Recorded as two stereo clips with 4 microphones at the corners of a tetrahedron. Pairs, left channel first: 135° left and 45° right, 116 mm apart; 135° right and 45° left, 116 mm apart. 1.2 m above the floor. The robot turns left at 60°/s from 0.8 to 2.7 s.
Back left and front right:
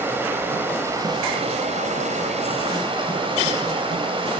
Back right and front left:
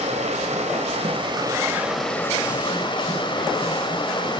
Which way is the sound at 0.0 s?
25° left.